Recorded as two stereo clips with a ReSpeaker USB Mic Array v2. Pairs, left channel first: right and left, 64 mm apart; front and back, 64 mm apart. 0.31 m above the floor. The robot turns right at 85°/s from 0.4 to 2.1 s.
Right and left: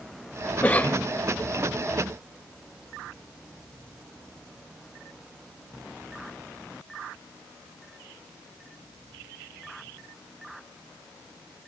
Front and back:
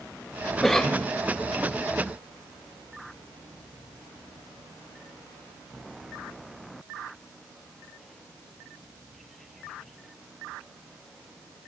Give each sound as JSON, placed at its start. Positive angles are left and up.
{"t": 0.6, "sound": "a cough", "azimuth_deg": -85, "distance_m": 1.2}